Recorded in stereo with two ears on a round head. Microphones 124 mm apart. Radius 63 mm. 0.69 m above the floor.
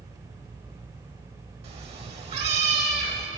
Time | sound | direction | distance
1.6 | a cat meowing | 45° right (ahead or behind) | 1.0 m